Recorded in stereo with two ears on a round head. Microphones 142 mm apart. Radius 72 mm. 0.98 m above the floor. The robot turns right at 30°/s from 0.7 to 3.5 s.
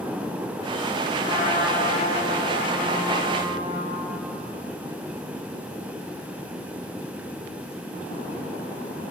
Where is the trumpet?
40° left, 4 m; by 4.0 s 105° left, 4 m.